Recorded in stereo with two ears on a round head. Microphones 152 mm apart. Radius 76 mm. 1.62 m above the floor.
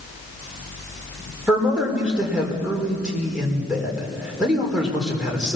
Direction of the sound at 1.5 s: 5° right (ahead or behind).